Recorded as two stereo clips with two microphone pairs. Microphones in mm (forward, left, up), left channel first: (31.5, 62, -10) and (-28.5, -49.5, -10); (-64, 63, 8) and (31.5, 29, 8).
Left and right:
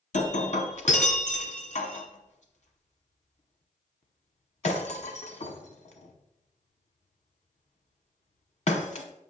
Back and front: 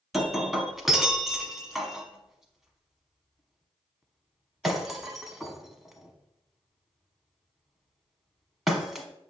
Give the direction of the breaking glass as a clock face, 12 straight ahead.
10 o'clock.